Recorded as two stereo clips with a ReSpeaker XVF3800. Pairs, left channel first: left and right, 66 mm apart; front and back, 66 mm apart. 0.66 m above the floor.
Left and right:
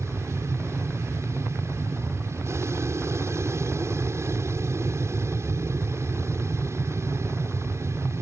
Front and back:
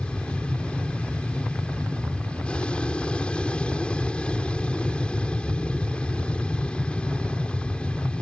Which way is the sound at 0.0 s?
70° right.